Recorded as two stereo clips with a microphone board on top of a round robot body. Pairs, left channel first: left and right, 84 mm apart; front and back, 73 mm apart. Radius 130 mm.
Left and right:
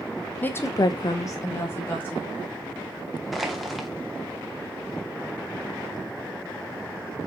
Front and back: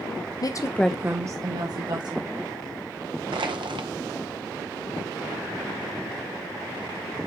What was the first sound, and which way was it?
A woman speaking, 20° left.